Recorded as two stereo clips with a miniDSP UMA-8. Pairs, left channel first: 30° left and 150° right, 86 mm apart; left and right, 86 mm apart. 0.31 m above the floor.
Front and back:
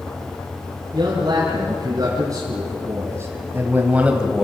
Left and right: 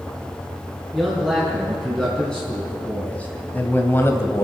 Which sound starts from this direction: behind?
A man speaking, at 0.9 s.